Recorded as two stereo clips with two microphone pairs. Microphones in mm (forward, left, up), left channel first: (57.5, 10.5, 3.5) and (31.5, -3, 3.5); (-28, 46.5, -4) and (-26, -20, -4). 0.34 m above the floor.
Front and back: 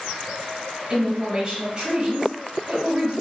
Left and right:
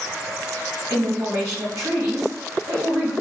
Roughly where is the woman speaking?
Right.